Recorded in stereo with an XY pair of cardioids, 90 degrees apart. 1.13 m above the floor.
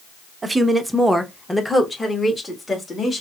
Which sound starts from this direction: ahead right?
A woman speaking, at 0.4 s.